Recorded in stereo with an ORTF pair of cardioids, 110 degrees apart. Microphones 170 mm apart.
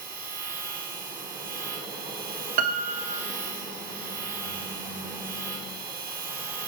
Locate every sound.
0.0 s a machine running: 55° right, 5 m
2.6 s a piano: 55° right, 1.0 m